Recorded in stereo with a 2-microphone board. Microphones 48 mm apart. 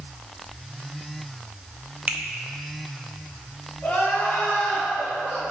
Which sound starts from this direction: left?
Crying, at 3.8 s.